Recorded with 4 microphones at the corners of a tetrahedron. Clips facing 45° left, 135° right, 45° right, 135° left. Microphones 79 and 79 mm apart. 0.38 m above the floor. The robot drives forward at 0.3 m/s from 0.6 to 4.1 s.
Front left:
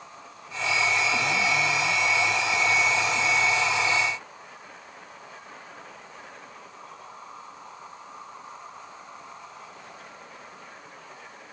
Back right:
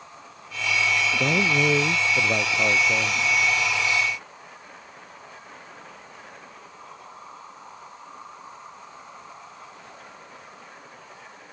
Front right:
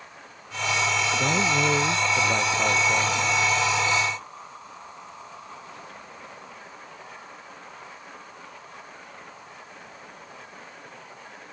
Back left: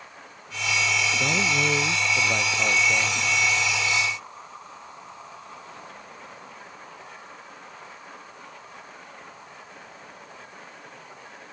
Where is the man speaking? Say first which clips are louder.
Back right 3 dB, front right 3 dB; 130° right.